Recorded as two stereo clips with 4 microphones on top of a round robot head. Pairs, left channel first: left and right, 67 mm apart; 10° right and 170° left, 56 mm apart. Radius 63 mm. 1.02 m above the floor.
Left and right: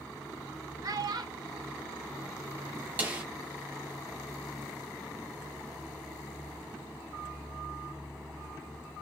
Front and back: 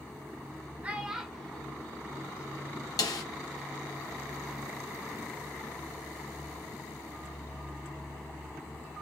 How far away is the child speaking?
About 0.9 m.